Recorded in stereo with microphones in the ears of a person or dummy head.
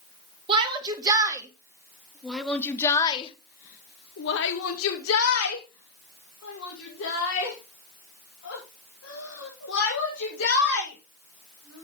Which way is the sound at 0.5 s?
25° right (ahead or behind).